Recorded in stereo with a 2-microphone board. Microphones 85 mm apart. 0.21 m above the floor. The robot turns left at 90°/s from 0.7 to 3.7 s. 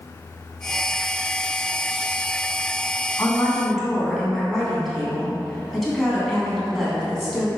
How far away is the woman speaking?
About 2 m.